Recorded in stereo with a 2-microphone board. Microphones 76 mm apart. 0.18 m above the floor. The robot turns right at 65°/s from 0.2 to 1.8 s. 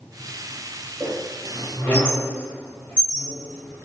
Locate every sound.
1.0 s a squeak: 25° right (ahead or behind), 1.2 m; by 3.9 s 25° left (ahead or behind), 1.2 m